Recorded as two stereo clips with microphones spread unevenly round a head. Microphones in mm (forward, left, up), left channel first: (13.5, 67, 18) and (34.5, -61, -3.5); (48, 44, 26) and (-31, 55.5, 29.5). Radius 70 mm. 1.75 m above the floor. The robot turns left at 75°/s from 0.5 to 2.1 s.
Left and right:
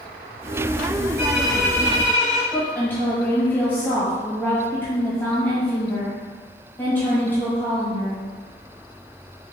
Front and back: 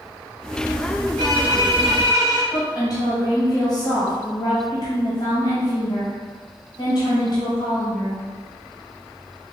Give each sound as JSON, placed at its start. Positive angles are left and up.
{"t": 1.2, "sound": "a violin", "azimuth_deg": -155, "distance_m": 1.2}
{"t": 2.5, "sound": "a woman speaking", "azimuth_deg": 25, "distance_m": 1.5}